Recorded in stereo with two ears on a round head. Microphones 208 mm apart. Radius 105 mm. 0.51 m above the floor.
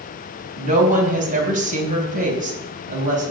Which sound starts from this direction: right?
A woman speaking, at 0.6 s.